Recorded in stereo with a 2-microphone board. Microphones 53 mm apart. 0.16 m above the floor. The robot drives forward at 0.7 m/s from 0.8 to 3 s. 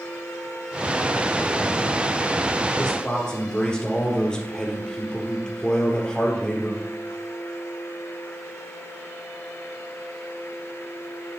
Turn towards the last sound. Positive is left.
turn(degrees=15)  # may be behind; listen again after turning